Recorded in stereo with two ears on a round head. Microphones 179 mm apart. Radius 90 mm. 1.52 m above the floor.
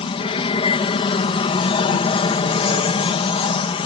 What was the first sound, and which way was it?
An aircraft, 25° left (ahead or behind).